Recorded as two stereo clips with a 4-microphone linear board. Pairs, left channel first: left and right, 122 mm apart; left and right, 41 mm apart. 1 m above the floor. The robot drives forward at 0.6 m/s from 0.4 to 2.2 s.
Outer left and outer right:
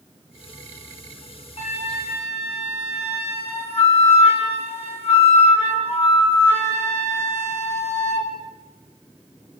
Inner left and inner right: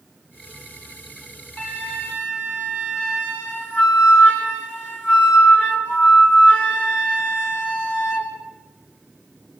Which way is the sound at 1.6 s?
60° left (ahead or behind).